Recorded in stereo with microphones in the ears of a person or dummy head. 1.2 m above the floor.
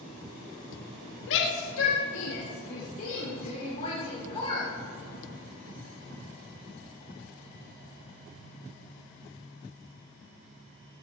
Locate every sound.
1.3 s a shout: 70° left (ahead or behind), 1.7 m; by 4.7 s 25° left (ahead or behind), 3.5 m